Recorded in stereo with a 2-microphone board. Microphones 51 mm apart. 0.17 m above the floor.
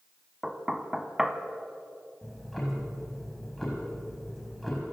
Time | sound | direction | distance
0.4 | knocking | 10° right (ahead or behind) | 1.3 m
2.2 | ticking | 5° left (ahead or behind) | 5 m